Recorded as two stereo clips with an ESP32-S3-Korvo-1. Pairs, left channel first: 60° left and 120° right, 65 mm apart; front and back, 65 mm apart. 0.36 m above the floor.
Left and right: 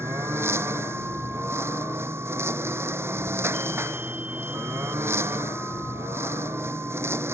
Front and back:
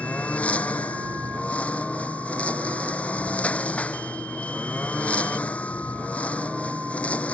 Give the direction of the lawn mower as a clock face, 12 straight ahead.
2 o'clock.